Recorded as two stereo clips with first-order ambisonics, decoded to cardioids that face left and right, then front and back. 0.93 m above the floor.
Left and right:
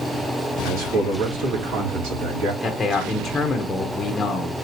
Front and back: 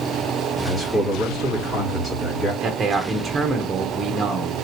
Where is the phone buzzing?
No phone buzzing in this recording.